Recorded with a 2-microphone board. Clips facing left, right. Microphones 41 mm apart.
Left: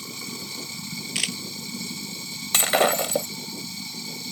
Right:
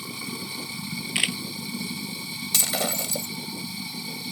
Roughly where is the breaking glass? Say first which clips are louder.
Left 8 dB; left.